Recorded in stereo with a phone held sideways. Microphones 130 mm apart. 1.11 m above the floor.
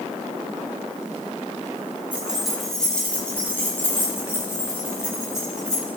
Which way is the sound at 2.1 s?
10° right (ahead or behind).